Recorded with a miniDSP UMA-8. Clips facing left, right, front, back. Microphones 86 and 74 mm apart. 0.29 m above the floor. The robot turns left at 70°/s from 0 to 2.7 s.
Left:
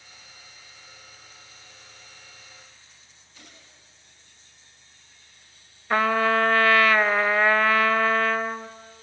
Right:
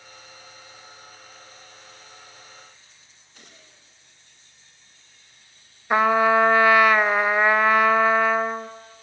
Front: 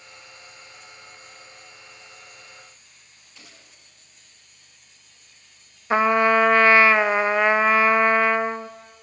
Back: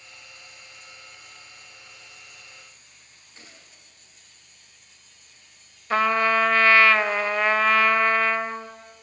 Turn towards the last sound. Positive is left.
turn(degrees=-40)